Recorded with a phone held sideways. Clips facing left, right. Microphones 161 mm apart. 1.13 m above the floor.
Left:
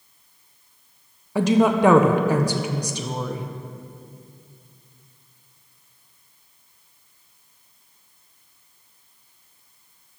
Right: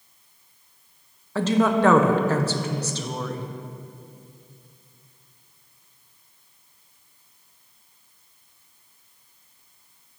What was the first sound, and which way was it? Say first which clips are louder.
A woman speaking: left 3 dB; 15° left (ahead or behind).